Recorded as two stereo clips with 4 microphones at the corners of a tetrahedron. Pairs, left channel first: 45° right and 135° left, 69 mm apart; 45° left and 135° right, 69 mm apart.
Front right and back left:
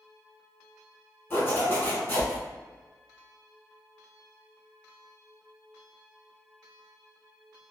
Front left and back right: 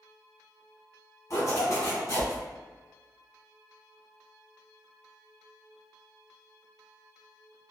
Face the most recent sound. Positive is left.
turn(degrees=10)